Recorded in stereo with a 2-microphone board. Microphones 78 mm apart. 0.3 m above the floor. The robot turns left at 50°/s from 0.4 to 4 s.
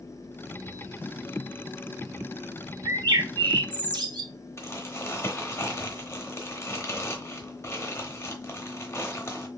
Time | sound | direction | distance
2.9 | a bird | 55° right | 0.6 m
4.6 | crumpling | 35° left (ahead or behind) | 0.8 m